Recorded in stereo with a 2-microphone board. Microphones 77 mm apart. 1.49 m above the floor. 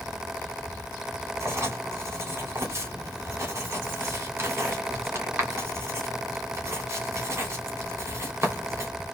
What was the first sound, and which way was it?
Writing, 35° right (ahead or behind).